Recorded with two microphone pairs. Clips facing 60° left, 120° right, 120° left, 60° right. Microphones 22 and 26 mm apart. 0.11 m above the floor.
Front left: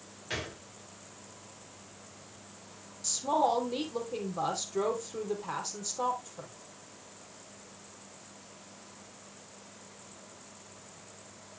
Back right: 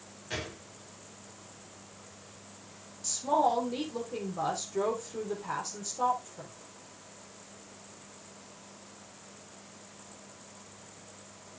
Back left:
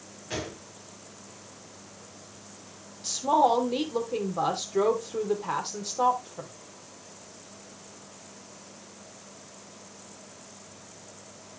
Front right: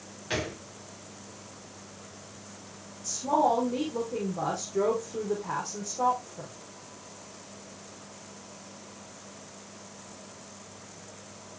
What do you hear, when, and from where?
0.3 s a gunshot: straight ahead, 5 m
3.0 s a woman speaking: 135° left, 4 m